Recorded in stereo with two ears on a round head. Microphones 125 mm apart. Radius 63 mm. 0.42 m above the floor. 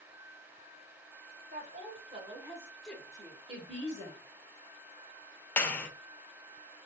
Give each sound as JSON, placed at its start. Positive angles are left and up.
{"t": 1.5, "sound": "a woman speaking", "side_deg": -55, "distance_m": 2.0}
{"t": 3.5, "sound": "a woman speaking", "side_deg": -45, "distance_m": 2.0}
{"t": 5.6, "sound": "a clap", "side_deg": 15, "distance_m": 0.8}